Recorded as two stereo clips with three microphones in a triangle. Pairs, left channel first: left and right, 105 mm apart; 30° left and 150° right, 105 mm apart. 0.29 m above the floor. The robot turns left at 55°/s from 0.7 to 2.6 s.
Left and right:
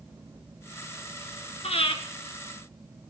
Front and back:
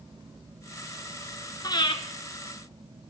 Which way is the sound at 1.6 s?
80° left.